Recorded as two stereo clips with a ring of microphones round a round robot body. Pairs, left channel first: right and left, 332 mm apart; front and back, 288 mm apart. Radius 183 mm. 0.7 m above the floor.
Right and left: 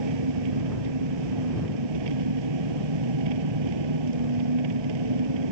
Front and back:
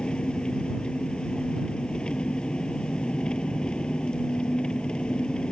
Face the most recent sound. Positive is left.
turn(degrees=85)